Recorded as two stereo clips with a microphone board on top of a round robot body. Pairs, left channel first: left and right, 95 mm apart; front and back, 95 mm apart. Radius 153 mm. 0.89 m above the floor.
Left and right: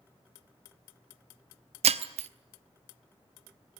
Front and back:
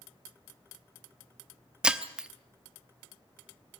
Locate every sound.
1.8 s breaking glass: 95° right, 0.8 m